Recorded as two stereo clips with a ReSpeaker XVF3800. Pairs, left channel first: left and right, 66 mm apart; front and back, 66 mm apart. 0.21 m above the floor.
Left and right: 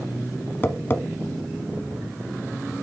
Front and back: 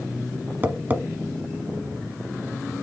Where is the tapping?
130° left, 0.7 m.